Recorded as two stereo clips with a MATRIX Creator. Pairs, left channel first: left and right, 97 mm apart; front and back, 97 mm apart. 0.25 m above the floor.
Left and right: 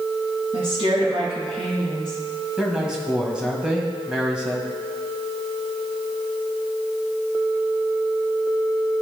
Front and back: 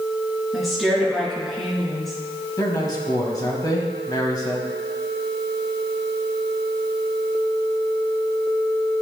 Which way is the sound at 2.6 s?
10° right.